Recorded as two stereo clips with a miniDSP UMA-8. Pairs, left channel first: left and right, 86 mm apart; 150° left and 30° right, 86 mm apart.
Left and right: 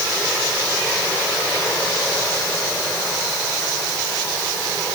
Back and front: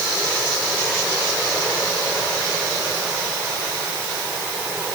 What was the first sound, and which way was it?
Only background noise.